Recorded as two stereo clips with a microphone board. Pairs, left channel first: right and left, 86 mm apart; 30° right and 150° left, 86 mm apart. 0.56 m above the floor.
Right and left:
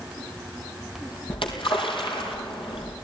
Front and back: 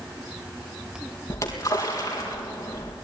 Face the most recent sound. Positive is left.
turn(degrees=-85)